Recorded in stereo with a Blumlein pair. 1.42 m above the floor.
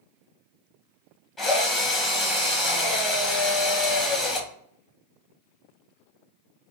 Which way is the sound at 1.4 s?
15° left.